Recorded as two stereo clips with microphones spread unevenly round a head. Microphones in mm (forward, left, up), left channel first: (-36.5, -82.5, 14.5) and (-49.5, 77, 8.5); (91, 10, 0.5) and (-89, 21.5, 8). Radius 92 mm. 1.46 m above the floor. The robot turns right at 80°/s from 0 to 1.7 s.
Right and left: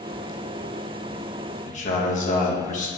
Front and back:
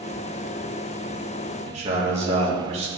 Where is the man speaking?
130° right, 1.4 m.